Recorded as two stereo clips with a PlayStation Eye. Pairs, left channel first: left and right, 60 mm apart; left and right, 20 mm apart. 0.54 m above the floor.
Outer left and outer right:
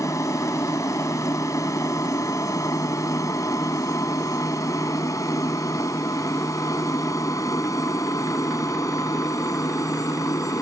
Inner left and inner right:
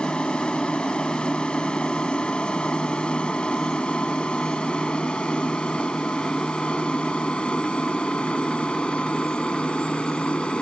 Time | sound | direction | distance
0.0 | an aircraft | 60° left (ahead or behind) | ?